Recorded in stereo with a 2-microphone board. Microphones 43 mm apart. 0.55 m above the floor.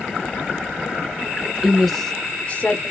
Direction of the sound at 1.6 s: 10° right (ahead or behind).